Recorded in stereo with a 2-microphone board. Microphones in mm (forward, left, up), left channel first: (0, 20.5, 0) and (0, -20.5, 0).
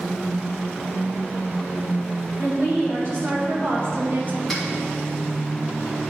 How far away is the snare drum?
About 2.5 m.